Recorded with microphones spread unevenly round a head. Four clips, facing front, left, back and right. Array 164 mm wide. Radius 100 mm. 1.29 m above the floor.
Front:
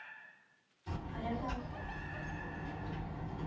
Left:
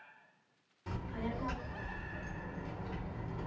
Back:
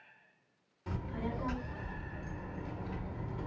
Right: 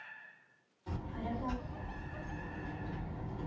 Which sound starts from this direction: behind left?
A child speaking, at 0.9 s.